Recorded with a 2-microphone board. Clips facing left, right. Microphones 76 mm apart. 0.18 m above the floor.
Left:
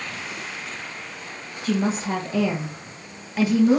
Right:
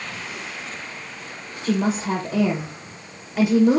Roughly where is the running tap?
I don't hear a running tap.